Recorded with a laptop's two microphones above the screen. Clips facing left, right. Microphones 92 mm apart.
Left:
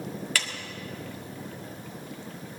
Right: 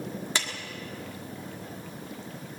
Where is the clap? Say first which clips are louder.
Even; 20° right (ahead or behind), 1.7 m.